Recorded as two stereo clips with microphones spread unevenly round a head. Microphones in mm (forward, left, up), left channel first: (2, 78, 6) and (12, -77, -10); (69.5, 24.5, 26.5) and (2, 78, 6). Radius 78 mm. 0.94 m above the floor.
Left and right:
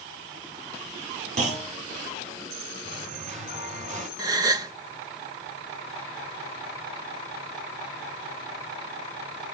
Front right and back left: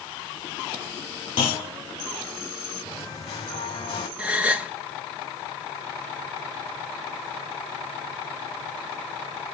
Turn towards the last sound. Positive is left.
turn(degrees=-145)